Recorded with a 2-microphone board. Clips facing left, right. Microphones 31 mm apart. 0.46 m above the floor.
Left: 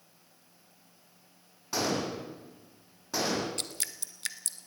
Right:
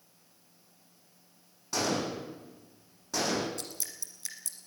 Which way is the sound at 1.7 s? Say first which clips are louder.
Even; 10° left (ahead or behind).